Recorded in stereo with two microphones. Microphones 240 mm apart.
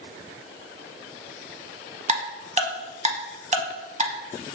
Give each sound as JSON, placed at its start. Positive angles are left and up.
{"t": 2.1, "sound": "ticking", "side_deg": -30, "distance_m": 0.7}